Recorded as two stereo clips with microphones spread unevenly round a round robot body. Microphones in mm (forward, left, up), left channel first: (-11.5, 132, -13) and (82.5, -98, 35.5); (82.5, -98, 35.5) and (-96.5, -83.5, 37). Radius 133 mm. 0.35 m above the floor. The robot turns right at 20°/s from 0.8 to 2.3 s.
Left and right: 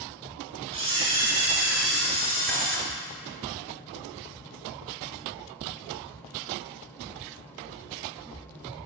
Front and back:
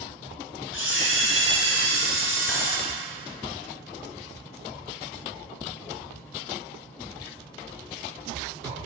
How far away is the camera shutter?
About 2 m.